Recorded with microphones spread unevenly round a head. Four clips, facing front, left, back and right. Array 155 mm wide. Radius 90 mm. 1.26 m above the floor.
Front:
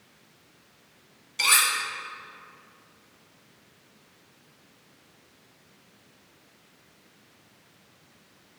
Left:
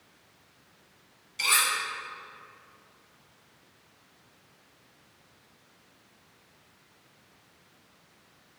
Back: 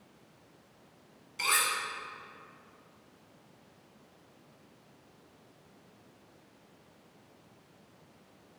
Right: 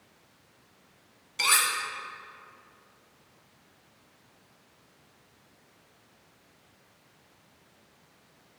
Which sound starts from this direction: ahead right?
Cutlery clinking, at 1.4 s.